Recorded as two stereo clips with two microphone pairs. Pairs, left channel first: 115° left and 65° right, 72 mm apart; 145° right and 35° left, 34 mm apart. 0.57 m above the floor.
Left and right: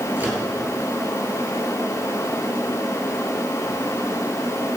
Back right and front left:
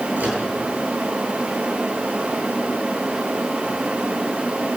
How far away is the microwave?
About 9 m.